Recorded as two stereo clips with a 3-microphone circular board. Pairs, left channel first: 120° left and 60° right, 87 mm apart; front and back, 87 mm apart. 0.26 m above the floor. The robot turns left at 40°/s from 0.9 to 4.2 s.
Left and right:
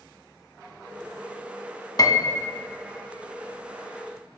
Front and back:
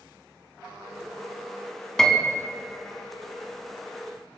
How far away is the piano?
About 0.8 m.